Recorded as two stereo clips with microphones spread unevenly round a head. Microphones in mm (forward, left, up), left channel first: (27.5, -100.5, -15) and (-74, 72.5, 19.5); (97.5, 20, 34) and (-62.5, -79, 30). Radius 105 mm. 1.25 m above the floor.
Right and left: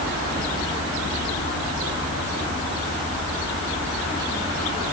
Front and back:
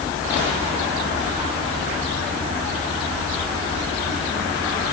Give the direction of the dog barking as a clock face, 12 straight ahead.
No dog barking in this recording.